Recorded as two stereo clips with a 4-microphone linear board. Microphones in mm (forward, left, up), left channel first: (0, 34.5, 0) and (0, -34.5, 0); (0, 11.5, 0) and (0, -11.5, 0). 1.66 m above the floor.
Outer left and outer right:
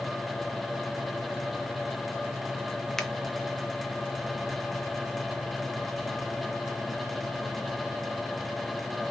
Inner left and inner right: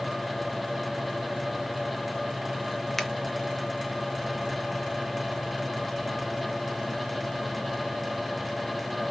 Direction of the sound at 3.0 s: 5° left (ahead or behind).